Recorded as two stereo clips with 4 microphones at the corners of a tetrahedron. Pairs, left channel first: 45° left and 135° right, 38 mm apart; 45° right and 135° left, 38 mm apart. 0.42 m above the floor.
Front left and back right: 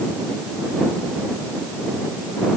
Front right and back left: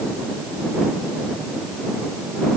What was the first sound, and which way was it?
Only background noise.